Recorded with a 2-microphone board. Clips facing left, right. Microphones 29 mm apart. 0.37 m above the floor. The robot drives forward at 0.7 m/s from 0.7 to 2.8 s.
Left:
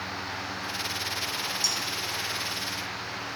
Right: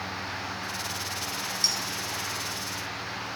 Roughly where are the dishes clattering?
Right.